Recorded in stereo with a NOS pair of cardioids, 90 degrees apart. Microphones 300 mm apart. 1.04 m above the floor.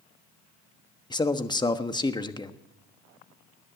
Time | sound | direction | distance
1.1 | a man speaking | 15° left | 1.2 m